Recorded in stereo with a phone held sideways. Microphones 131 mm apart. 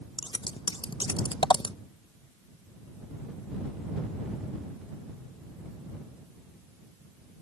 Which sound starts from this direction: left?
Scissors, at 0.2 s.